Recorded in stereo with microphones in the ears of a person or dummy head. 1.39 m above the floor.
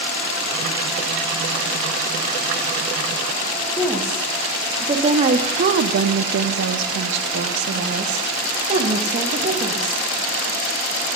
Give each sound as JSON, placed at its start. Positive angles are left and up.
{"t": 3.8, "sound": "a woman speaking", "side_deg": -5, "distance_m": 1.4}